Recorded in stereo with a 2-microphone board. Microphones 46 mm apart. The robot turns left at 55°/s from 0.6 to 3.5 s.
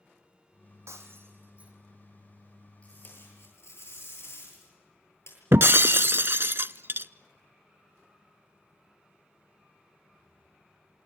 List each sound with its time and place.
0.9 s breaking glass: 110° right, 4 m; by 1.7 s 160° right, 4 m
2.8 s tape being pulled: 150° left, 10 m; by 5.4 s 115° left, 10 m
5.5 s breaking glass: 55° right (ahead or behind), 0.5 m